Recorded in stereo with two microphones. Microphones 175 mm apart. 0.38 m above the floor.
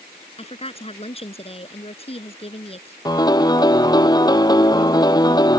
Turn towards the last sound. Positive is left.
turn(degrees=20)  # may be behind; listen again after turning